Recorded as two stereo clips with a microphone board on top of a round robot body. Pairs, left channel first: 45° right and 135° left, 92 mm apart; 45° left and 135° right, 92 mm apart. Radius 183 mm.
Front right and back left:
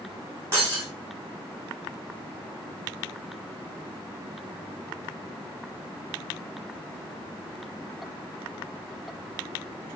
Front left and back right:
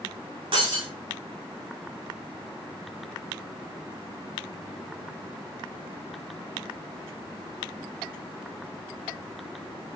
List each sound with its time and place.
0.5 s breaking glass: 160° right, 4.5 m